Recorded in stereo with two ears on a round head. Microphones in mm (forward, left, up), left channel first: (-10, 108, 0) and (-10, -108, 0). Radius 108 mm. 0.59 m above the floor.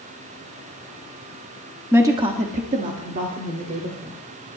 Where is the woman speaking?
10° right (ahead or behind), 1.2 m; by 4.2 s 35° right (ahead or behind), 2.5 m.